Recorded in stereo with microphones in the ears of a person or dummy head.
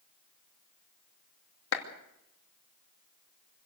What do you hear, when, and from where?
1.7 s a clap: 80° left, 2.5 m